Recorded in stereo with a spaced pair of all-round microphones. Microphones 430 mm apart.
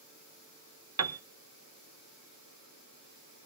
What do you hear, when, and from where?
1.0 s a piano: 40° right (ahead or behind), 0.5 m